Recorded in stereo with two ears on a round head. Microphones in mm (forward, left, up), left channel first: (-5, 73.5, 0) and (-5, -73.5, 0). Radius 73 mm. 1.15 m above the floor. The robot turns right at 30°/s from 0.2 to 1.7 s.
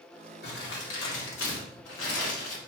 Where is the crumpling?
60° left, 2.5 m; by 2.6 s 100° left, 2.5 m.